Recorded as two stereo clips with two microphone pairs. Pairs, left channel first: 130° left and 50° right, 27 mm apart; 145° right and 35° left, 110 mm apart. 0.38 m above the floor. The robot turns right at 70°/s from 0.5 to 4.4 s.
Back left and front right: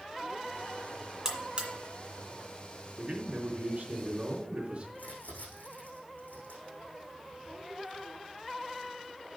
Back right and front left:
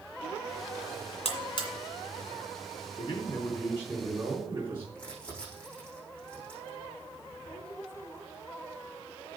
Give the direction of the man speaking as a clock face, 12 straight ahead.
4 o'clock.